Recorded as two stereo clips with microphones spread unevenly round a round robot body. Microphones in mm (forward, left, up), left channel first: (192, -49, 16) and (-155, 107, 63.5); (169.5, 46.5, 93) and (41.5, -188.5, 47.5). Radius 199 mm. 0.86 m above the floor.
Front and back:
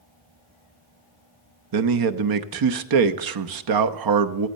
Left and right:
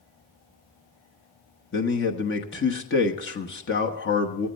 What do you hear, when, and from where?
1.7 s a man speaking: 120° left, 1.1 m